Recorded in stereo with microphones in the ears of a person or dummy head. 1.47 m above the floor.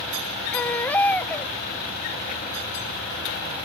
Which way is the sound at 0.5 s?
10° left (ahead or behind).